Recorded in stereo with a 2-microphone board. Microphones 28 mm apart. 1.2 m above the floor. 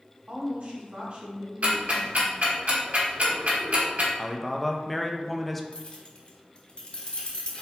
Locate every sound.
0.3 s a woman speaking: 55° right (ahead or behind), 1.7 m
1.6 s ticking: 55° right (ahead or behind), 1.6 m
4.2 s a man speaking: 5° left (ahead or behind), 0.5 m
5.7 s keys jangling: 40° left (ahead or behind), 1.0 m